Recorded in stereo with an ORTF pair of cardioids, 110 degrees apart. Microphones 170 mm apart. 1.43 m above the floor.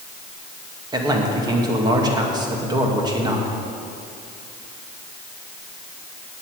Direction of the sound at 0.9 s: 25° right.